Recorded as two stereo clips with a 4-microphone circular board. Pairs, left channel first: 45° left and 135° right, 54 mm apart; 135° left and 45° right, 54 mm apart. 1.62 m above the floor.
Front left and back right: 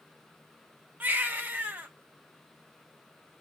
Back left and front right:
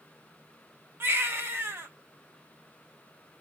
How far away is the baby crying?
About 1.0 m.